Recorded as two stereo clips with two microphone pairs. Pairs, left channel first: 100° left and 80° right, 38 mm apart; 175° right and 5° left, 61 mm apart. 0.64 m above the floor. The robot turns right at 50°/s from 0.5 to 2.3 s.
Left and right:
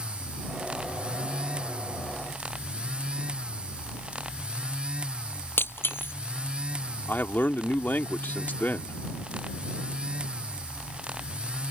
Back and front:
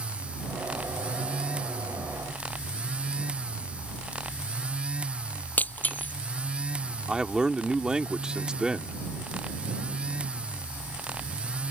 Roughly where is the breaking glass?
Behind left.